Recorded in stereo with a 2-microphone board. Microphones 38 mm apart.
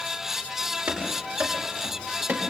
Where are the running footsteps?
80° right, 5 m; by 2.4 s 75° right (ahead or behind), 5 m.